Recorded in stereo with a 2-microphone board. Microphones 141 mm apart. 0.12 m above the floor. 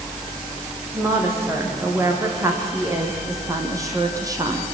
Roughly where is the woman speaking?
Centre.